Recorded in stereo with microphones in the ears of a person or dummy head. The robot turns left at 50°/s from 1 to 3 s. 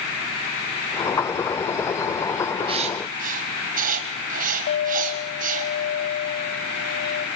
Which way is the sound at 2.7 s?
30° right (ahead or behind).